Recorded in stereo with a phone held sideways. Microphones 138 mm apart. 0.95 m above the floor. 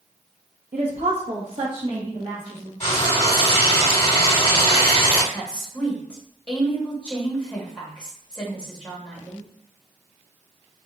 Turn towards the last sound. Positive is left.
turn(degrees=10)  # may be behind; listen again after turning